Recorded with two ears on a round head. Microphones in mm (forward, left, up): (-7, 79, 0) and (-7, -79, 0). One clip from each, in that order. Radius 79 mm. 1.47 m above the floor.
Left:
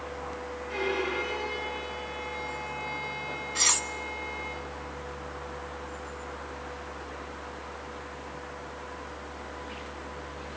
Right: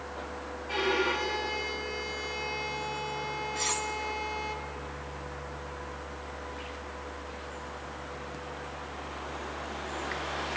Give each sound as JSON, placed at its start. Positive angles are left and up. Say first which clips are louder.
{"t": 0.7, "sound": "a violin", "louder": "right 2 dB", "side_deg": -75, "distance_m": 3.0}
{"t": 3.5, "sound": "cutlery clinking", "louder": "left 7 dB", "side_deg": 30, "distance_m": 0.6}